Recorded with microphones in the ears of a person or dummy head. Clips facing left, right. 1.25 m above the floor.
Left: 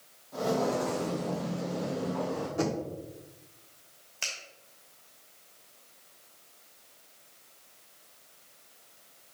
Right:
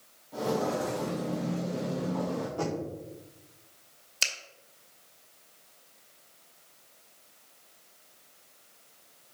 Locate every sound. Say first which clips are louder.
0.3 s footsteps: left 1 dB; 10° right (ahead or behind), 3 m; by 2.5 s 40° right (ahead or behind), 3 m
2.6 s knocking: left 5 dB; 25° left (ahead or behind), 1.3 m
4.2 s a finger snap: right 2 dB; 55° right (ahead or behind), 2.5 m